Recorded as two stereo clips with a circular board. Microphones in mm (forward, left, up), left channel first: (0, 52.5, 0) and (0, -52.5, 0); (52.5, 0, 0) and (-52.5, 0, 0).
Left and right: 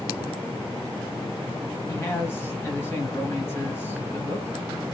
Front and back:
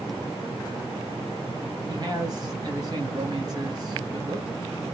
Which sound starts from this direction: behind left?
A man speaking, at 1.9 s.